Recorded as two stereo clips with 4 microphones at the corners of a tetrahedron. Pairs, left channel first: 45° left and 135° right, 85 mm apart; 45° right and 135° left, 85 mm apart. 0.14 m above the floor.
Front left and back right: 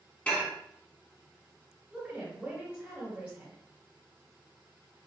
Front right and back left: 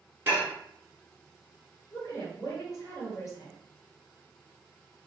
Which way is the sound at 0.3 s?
100° left.